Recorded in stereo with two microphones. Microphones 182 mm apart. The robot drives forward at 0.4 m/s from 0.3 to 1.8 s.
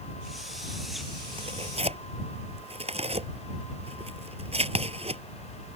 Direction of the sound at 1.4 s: 30° right (ahead or behind).